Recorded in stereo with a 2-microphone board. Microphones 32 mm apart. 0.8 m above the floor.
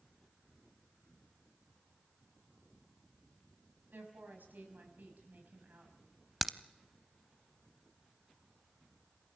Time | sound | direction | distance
3.9 | a woman speaking | 85° right | 6 m
6.4 | a crack | centre (ahead or behind) | 0.6 m